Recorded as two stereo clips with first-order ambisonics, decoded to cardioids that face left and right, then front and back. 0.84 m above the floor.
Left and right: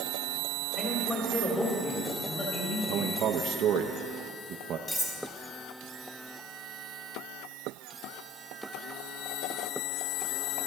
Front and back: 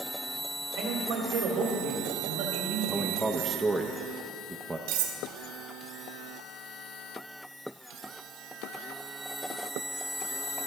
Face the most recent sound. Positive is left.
turn(degrees=165)